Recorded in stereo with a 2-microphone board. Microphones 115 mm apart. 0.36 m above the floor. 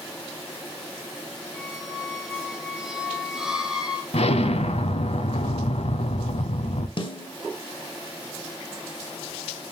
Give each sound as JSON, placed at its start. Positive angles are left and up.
{"t": 1.5, "sound": "a squeak", "side_deg": -5, "distance_m": 0.9}
{"t": 4.1, "sound": "an explosion", "side_deg": 70, "distance_m": 0.5}
{"t": 7.0, "sound": "a snare drum", "side_deg": 45, "distance_m": 0.7}